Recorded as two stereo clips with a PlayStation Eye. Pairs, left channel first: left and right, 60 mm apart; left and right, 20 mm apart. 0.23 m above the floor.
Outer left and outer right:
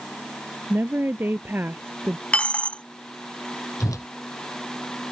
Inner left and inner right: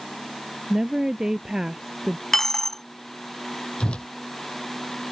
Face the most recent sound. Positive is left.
turn(degrees=65)  # may be behind; listen again after turning